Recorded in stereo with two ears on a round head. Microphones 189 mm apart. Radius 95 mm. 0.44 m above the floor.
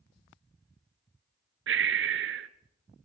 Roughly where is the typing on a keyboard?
No typing on a keyboard in this recording.